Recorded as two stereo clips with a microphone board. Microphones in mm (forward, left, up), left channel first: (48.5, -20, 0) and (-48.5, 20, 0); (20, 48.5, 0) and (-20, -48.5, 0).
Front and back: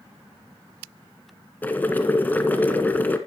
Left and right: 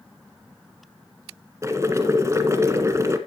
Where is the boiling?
80° right, 1.5 m.